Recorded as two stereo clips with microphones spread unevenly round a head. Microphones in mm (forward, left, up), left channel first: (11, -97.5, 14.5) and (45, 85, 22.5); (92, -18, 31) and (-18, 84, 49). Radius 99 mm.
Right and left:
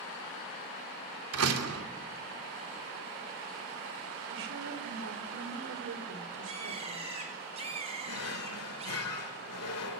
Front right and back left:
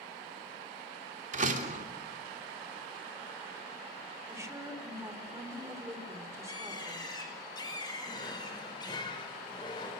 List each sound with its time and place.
1.3 s a door slam: 100° left, 3 m
4.3 s a woman speaking: 65° left, 4 m
6.5 s a bird: 20° left, 9 m
8.1 s a drawer: 115° right, 2 m